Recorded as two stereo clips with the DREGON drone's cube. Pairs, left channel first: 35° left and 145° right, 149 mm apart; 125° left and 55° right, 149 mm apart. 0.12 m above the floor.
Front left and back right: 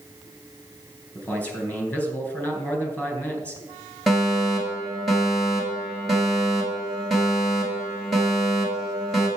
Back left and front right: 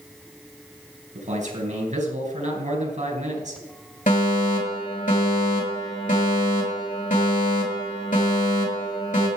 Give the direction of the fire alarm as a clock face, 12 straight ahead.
8 o'clock.